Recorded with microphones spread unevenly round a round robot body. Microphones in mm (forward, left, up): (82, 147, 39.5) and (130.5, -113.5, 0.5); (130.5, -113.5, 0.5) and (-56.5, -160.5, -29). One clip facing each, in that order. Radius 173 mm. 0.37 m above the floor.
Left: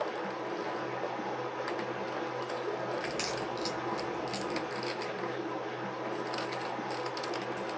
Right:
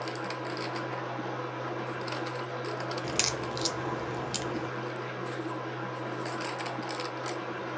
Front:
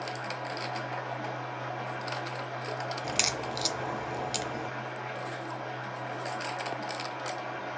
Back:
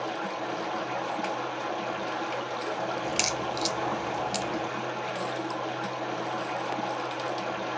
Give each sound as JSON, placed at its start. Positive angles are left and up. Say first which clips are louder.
{"t": 0.0, "sound": "running water", "louder": "even, back 5 dB", "azimuth_deg": -165, "distance_m": 1.7}
{"t": 3.0, "sound": "a crack", "louder": "right 1 dB, back 4 dB", "azimuth_deg": -80, "distance_m": 0.6}